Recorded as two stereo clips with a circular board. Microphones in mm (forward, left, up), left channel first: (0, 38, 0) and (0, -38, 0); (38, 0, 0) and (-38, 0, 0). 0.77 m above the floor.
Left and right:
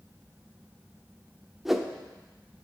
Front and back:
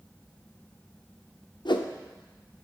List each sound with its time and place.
1.6 s a whoosh: 5° right, 0.6 m